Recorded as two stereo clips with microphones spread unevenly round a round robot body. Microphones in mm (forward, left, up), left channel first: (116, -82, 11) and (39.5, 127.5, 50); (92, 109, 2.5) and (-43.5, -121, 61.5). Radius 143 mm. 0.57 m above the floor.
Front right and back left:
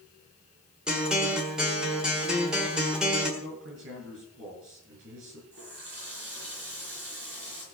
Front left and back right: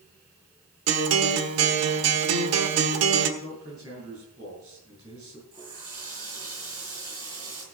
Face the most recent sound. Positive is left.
turn(degrees=160)